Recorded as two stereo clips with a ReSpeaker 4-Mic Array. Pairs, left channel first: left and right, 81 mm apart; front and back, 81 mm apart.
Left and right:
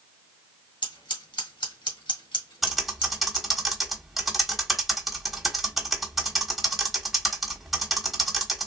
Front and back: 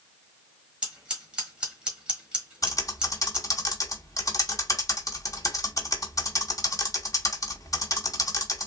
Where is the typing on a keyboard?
5° right, 1.2 m.